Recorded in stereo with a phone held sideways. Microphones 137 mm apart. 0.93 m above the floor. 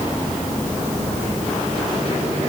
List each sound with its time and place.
Only background noise.